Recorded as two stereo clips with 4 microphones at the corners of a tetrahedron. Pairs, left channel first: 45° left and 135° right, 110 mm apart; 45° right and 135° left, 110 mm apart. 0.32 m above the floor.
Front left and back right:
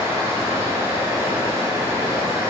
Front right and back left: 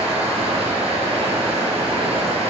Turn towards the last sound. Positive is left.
turn(degrees=160)